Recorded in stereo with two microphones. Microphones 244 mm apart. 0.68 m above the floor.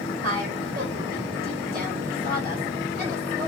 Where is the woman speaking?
40° right (ahead or behind), 3.5 m.